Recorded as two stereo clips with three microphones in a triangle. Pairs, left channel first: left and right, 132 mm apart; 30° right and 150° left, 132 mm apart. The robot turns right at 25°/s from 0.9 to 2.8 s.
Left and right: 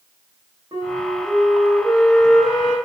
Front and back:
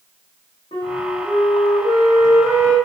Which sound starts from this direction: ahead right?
A flute, at 0.7 s.